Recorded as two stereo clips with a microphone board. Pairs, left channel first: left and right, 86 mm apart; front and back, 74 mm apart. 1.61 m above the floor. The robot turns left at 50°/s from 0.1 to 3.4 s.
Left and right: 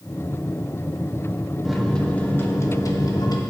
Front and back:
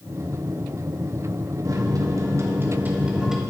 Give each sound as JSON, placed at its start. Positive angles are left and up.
{"t": 1.6, "sound": "a microwave", "azimuth_deg": -175, "distance_m": 1.1}